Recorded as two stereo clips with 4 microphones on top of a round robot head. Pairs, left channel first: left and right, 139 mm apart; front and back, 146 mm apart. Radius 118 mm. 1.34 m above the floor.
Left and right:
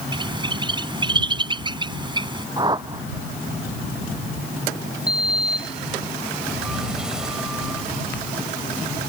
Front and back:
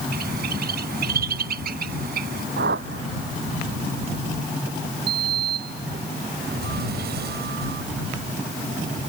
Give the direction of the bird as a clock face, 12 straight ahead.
5 o'clock.